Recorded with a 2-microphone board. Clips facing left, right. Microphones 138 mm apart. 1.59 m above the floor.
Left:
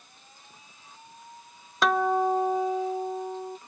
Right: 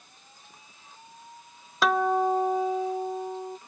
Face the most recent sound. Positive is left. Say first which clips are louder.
# even
turn(degrees=0)  # may be behind; listen again after turning